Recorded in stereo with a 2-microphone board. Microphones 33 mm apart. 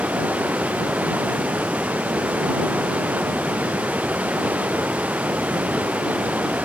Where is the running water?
55° right (ahead or behind).